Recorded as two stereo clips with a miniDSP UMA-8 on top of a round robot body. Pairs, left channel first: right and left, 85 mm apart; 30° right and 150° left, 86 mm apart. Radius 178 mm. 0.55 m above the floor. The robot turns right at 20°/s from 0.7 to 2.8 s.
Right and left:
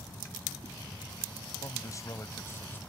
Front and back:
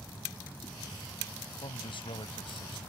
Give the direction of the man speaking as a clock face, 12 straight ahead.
2 o'clock.